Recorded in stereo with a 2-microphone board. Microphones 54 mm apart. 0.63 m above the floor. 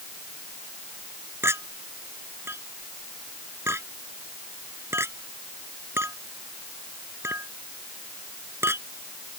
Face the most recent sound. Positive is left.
turn(degrees=-50)  # may be behind; listen again after turning